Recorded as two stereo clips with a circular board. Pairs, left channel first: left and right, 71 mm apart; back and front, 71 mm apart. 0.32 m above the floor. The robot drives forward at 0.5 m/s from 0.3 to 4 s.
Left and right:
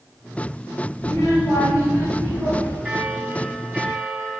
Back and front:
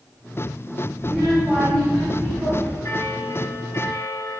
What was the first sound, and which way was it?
A child speaking, 105° left.